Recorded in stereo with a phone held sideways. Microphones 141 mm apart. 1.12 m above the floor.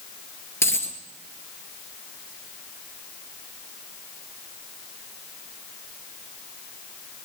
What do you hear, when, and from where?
0.6 s a dropped coin: 20° left (ahead or behind), 1.9 m